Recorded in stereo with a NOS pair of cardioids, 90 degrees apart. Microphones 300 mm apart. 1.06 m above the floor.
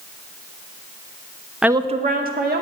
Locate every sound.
1.6 s a woman speaking: straight ahead, 0.6 m; by 2.6 s 35° right, 2 m